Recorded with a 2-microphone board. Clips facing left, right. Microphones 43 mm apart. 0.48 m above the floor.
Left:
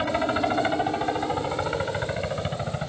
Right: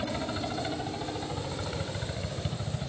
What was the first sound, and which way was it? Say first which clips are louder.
A helicopter: left 9 dB; 40° left (ahead or behind).